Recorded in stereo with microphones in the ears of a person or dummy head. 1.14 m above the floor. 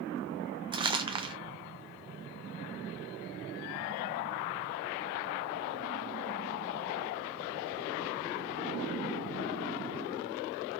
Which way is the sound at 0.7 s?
25° right (ahead or behind).